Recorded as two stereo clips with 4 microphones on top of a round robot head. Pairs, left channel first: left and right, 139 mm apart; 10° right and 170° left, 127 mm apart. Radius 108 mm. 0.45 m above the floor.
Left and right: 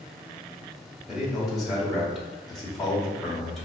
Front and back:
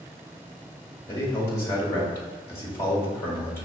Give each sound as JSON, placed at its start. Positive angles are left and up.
{"t": 1.1, "sound": "a man speaking", "azimuth_deg": 0, "distance_m": 1.1}